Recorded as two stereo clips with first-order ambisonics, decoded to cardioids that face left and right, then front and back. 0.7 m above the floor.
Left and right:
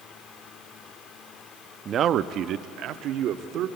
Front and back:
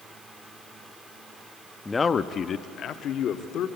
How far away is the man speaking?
About 0.5 m.